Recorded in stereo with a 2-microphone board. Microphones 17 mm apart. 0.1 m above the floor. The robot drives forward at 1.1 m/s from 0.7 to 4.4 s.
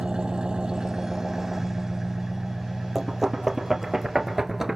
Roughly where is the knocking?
Centre.